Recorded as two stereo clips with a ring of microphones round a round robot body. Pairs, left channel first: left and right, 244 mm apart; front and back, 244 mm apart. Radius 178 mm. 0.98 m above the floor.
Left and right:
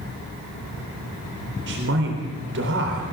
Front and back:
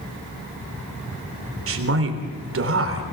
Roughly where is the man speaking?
Behind right.